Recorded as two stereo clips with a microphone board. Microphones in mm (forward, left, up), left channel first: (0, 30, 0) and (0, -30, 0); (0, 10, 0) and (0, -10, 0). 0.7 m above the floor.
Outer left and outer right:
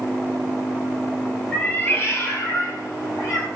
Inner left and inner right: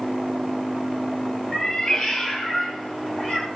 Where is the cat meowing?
20° left (ahead or behind), 0.9 m; by 3.5 s 60° left (ahead or behind), 2 m.